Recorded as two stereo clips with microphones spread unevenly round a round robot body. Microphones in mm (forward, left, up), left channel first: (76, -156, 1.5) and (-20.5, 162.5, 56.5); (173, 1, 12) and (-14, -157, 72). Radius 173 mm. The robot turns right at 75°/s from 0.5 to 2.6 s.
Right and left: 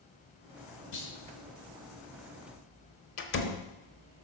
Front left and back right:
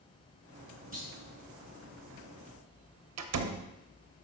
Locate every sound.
0.9 s a clunk: 100° right, 3 m; by 1.1 s 85° right, 3 m
3.2 s a door slam: 120° right, 0.8 m